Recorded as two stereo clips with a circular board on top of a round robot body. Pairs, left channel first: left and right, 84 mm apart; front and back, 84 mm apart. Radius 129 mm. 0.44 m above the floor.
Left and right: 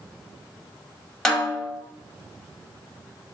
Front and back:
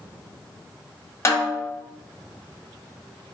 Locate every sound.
1.2 s a snare drum: 10° left, 1.0 m